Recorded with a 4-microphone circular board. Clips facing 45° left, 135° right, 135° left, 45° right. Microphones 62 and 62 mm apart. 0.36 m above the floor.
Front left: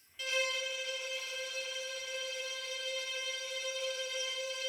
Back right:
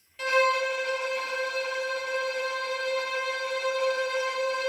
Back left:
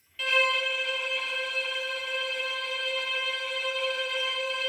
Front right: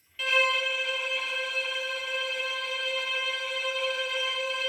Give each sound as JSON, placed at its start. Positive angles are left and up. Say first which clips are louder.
{"t": 0.2, "sound": "a violin", "louder": "back right 12 dB, even", "azimuth_deg": -135}